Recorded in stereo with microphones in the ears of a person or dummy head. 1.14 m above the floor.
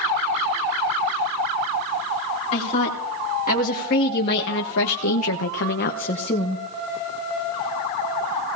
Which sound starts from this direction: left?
A woman speaking, at 2.5 s.